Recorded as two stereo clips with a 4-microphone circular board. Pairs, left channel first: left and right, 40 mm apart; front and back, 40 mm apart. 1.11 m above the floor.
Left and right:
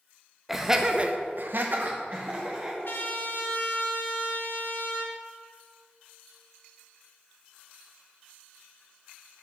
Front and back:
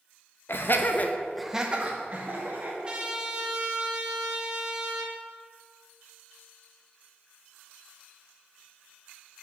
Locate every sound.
0.5 s laughter: 5° right, 1.4 m; by 2.7 s 140° right, 2.5 m
2.8 s a trumpet: 115° left, 1.5 m